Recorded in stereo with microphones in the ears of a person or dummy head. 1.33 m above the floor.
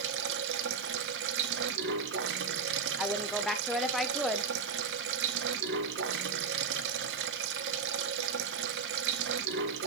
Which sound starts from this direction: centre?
A woman speaking, at 3.0 s.